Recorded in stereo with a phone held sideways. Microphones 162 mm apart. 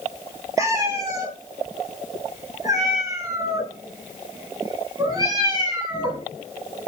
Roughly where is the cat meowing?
Centre.